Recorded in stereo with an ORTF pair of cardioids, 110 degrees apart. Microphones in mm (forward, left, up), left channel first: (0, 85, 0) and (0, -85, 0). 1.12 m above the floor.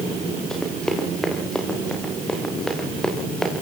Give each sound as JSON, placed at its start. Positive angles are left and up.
{"t": 0.5, "sound": "running footsteps", "azimuth_deg": 5, "distance_m": 8.5}